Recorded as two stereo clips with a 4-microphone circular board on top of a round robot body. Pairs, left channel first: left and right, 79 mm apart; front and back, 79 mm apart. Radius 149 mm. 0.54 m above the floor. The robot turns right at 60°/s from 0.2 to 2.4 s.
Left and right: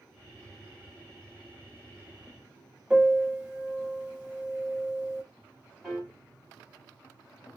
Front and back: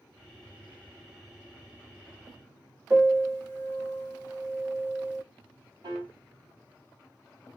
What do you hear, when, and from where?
2.9 s a piano: 155° right, 1.3 m
5.8 s a piano: straight behind, 1.2 m